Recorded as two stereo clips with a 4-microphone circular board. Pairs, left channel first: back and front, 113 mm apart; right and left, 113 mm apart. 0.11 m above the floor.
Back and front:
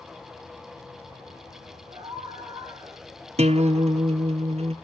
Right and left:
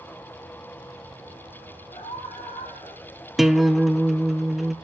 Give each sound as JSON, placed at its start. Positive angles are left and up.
{"t": 1.9, "sound": "a scream", "azimuth_deg": -50, "distance_m": 9.0}
{"t": 3.4, "sound": "a guitar", "azimuth_deg": 0, "distance_m": 0.8}